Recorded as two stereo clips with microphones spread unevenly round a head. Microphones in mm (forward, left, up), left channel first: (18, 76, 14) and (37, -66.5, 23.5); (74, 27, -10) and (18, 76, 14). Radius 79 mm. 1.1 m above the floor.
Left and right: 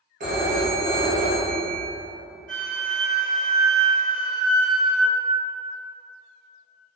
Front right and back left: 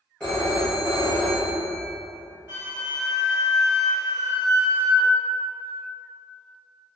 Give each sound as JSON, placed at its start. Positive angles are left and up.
{"t": 0.2, "sound": "a phone ringing", "azimuth_deg": -125, "distance_m": 0.8}
{"t": 2.5, "sound": "a flute", "azimuth_deg": 115, "distance_m": 1.0}